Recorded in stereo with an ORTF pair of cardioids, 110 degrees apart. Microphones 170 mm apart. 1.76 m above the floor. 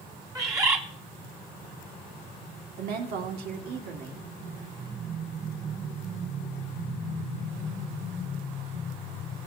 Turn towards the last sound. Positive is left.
turn(degrees=-70)